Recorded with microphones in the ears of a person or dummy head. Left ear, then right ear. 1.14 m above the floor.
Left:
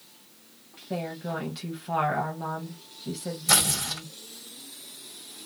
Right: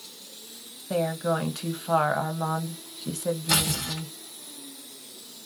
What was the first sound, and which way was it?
A woman speaking, 40° right (ahead or behind).